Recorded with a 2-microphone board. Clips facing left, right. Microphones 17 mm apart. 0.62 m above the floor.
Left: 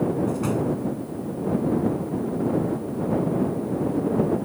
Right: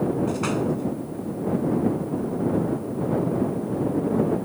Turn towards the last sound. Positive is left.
turn(degrees=-30)  # may be behind; listen again after turning